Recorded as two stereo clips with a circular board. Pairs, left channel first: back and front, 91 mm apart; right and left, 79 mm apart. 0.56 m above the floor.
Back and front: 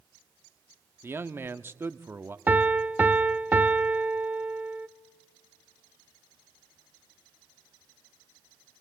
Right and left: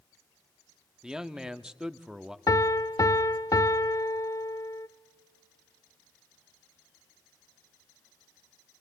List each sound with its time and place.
1.0 s a man speaking: 20° left, 0.6 m
2.5 s a piano: 65° right, 0.6 m